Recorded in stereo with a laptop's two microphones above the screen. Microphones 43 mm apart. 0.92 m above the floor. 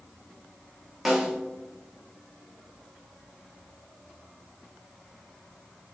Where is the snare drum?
Centre (ahead or behind), 1.0 m.